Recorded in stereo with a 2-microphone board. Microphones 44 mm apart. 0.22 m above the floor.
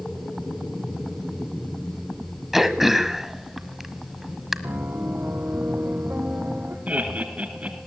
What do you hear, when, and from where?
2.5 s throat clearing: 5° right (ahead or behind), 1.2 m
4.6 s a piano: 55° right (ahead or behind), 2.5 m
6.9 s laughter: 35° right (ahead or behind), 3 m